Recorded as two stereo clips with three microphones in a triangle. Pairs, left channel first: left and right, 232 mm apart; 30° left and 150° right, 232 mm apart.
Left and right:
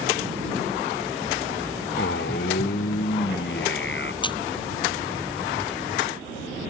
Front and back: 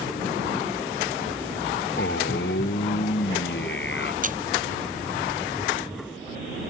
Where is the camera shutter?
160° left.